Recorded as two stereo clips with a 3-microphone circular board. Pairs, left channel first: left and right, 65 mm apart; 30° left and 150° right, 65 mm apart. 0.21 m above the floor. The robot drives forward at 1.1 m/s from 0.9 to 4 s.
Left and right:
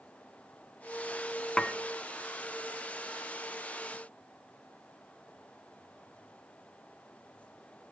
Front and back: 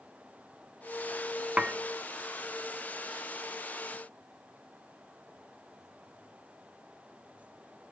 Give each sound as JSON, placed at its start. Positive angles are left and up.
{"t": 1.6, "sound": "dishes clattering", "azimuth_deg": 160, "distance_m": 0.7}